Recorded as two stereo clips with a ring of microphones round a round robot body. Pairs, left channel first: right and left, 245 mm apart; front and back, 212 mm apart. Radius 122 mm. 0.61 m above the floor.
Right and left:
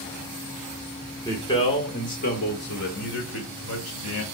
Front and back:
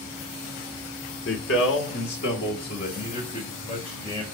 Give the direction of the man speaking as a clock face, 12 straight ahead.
12 o'clock.